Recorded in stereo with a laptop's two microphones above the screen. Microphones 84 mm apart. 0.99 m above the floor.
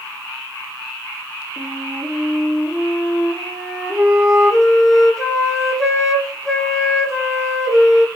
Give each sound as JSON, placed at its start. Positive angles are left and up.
{"t": 1.6, "sound": "a flute", "side_deg": 0, "distance_m": 6.0}